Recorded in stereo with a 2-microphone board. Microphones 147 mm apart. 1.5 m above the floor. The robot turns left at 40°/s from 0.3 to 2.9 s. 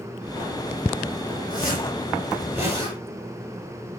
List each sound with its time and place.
1.5 s a zipper: 30° left, 9.5 m; by 3.0 s 25° right, 9.5 m